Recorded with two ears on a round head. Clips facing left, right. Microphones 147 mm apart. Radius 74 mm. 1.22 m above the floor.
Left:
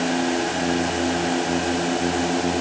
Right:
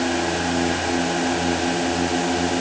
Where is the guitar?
No guitar in this recording.